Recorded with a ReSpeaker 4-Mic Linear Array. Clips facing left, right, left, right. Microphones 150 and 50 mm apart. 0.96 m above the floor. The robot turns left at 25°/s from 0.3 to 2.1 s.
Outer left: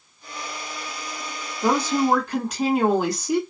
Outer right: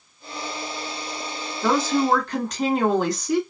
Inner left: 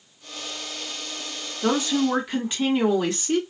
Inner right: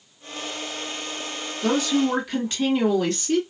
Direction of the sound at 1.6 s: 20° left (ahead or behind).